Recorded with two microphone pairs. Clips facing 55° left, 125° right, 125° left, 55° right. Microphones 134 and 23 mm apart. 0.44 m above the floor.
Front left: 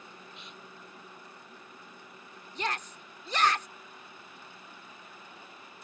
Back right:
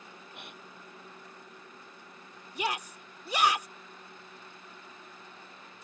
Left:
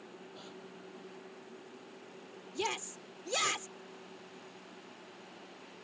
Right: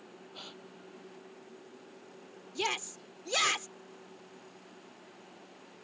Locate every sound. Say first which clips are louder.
0.3 s a gasp: back right 1 dB, right 6 dB; 100° right
2.5 s a shout: back right 1 dB, right 3 dB; 70° right